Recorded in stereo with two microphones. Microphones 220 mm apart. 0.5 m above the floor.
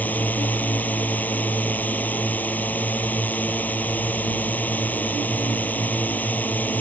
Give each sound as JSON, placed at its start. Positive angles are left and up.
{"t": 0.0, "sound": "a drone", "side_deg": 5}